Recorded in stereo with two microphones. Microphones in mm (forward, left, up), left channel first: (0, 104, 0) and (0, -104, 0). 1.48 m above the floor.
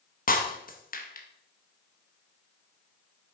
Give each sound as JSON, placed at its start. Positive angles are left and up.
{"t": 0.3, "sound": "breaking glass", "side_deg": 45, "distance_m": 1.0}